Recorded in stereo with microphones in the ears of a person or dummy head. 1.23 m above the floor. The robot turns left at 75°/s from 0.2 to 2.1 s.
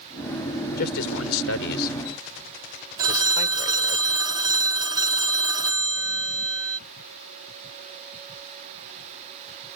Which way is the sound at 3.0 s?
25° right (ahead or behind).